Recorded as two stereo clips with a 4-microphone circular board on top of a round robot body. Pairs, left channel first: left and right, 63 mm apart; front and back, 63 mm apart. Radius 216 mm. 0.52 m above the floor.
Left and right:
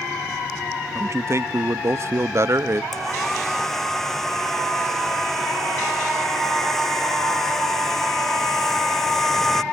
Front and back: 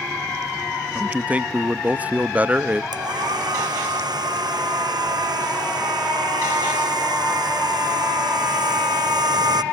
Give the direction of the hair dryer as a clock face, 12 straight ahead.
6 o'clock.